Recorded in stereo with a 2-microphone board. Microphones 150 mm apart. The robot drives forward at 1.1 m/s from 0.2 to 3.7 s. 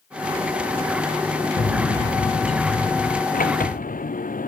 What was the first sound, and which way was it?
A bird, 65° left (ahead or behind).